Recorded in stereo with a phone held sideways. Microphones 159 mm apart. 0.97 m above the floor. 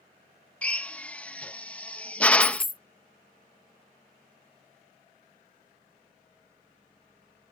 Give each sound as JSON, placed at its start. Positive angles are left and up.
{"t": 0.6, "sound": "a drill", "side_deg": 10}
{"t": 2.4, "sound": "a dropped coin", "side_deg": 60}